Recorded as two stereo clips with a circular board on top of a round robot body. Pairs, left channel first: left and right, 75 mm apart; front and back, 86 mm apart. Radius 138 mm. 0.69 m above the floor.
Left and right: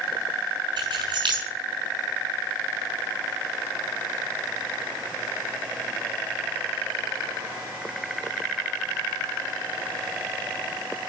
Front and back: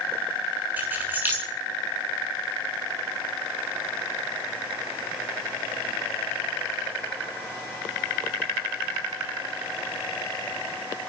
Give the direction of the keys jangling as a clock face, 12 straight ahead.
4 o'clock.